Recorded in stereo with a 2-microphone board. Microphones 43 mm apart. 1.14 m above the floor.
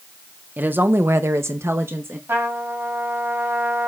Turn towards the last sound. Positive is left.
turn(degrees=-65)  # may be behind; listen again after turning